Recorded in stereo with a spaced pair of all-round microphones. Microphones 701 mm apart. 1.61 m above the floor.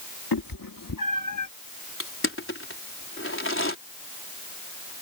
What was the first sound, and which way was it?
A cat meowing, 30° left (ahead or behind).